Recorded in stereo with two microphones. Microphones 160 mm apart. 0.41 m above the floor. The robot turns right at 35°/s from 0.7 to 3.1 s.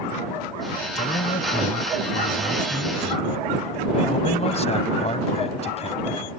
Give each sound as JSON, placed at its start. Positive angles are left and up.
{"t": 0.9, "sound": "a man speaking", "azimuth_deg": 60}